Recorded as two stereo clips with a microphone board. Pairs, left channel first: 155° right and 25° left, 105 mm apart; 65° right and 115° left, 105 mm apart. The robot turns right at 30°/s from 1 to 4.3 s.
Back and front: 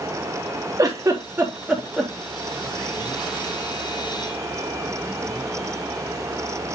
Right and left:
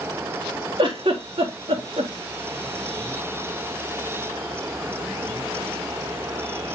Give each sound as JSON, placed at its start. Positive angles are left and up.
{"t": 0.8, "sound": "a giggle", "azimuth_deg": 80, "distance_m": 3.5}